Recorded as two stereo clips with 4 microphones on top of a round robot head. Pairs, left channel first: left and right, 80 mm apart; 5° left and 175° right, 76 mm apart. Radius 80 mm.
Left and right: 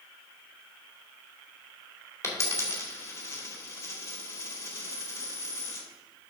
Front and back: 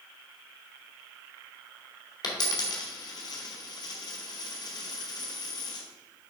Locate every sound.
2.2 s a dropped coin: 35° left, 1.9 m